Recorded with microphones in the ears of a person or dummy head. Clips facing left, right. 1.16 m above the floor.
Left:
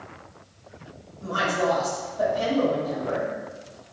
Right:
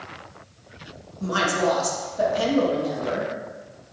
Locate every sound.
1.2 s a woman speaking: 75° right (ahead or behind), 1.4 m